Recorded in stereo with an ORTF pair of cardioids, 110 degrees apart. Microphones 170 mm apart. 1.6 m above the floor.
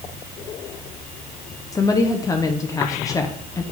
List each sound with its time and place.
1.7 s a woman speaking: 20° left, 0.9 m